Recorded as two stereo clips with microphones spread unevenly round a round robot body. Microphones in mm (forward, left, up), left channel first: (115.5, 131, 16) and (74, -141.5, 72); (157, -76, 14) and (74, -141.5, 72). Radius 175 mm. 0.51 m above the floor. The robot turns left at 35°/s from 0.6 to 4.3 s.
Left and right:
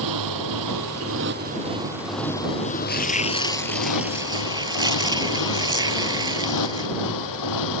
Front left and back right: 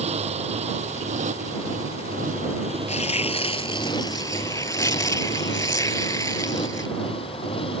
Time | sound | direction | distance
0.0 | a motorcycle | 135° right | ?
2.9 | tearing paper | 25° left | ?